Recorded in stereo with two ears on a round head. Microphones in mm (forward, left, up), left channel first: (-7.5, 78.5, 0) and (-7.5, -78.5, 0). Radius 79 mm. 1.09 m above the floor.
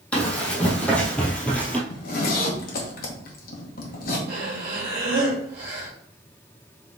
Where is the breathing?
55° right (ahead or behind), 1.7 m.